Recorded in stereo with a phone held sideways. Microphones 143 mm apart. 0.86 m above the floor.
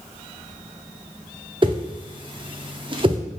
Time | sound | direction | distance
1.6 | a whoosh | 35° right (ahead or behind) | 0.5 m